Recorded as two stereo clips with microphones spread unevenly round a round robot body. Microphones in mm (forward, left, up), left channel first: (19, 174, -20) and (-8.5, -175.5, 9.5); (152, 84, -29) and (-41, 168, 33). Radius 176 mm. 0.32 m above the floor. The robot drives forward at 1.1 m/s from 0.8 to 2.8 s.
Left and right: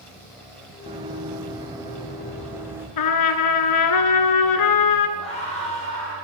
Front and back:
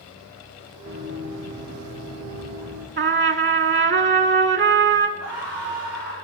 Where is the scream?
160° left, 8 m.